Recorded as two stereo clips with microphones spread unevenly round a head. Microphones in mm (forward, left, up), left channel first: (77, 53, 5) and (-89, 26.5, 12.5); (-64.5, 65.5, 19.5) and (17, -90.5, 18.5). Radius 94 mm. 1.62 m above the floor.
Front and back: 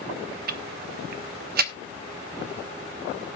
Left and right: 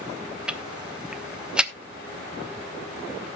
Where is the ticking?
145° right, 1.0 m.